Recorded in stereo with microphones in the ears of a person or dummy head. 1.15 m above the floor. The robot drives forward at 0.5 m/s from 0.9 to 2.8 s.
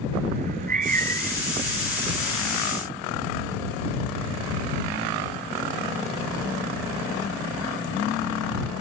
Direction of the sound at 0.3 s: 45° right (ahead or behind).